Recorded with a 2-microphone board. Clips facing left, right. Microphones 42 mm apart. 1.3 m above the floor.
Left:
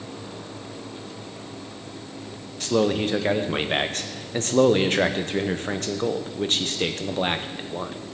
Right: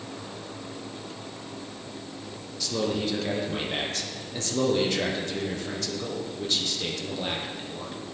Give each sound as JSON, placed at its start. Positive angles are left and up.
{"t": 2.6, "sound": "a man speaking", "side_deg": 45, "distance_m": 0.8}